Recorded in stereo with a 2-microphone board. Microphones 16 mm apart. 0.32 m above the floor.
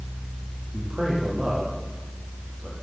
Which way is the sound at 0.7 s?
45° right (ahead or behind).